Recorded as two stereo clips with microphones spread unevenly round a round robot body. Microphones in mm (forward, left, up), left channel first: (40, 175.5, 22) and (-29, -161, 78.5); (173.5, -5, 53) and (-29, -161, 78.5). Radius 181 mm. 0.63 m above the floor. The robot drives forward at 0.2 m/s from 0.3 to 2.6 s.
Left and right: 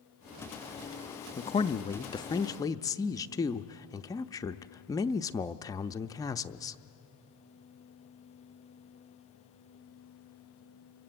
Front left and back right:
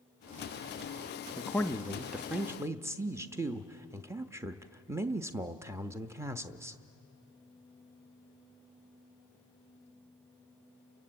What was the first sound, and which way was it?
A man speaking, 90° left.